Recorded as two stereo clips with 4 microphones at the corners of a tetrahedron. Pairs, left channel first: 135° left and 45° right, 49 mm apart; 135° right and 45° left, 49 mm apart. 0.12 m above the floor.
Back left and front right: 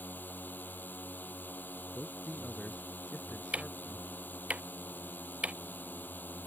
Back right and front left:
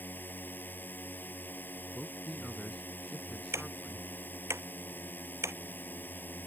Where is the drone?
Straight behind.